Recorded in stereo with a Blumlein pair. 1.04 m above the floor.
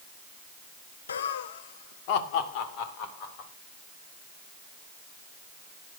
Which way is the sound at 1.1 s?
70° left.